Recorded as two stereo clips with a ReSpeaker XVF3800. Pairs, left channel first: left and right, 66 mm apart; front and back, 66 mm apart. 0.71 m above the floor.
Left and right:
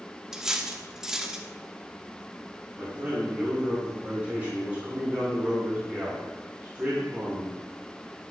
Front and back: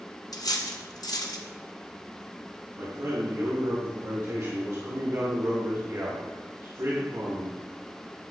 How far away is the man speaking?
About 2 m.